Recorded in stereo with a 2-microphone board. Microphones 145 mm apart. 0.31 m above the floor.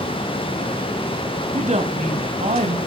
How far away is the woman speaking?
About 1.7 m.